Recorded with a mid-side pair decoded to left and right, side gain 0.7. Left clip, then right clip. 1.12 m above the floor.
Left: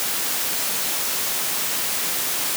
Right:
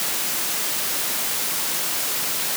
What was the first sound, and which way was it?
Only background noise.